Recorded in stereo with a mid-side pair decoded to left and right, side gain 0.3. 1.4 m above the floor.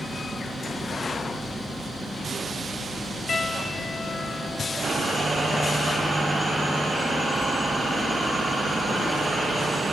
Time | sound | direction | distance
3.3 | a piano | 60° left | 1.0 m